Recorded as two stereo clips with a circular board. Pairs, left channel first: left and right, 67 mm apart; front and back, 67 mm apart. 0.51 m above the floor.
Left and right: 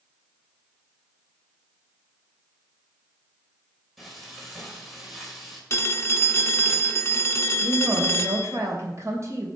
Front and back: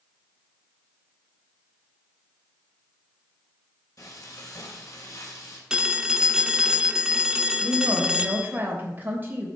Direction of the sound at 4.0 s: 5° right.